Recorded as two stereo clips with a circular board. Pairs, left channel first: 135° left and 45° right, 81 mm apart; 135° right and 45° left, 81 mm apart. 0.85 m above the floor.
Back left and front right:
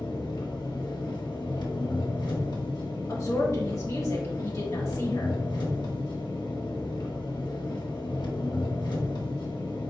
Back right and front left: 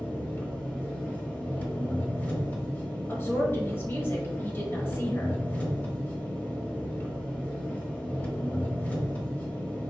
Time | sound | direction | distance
0.0 | an engine running | 160° left | 1.1 m
3.1 | a woman speaking | 170° left | 1.4 m